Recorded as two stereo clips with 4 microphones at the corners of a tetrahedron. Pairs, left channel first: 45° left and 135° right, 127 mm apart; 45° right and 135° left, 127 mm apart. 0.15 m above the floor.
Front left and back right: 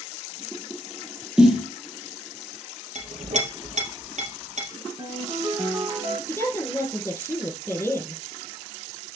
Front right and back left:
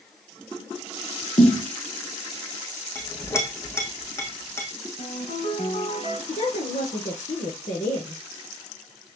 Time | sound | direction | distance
1.4 | a snare drum | 50° right | 3 m
3.0 | a clink | 110° right | 3 m
5.0 | a ringtone | 75° right | 6.5 m
6.3 | a woman speaking | 25° right | 4.5 m